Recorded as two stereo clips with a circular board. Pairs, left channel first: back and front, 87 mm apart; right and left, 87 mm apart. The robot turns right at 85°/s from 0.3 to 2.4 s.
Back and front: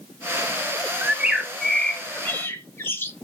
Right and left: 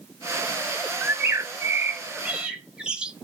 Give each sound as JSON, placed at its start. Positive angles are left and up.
{"t": 1.0, "sound": "a bird", "azimuth_deg": 40, "distance_m": 1.0}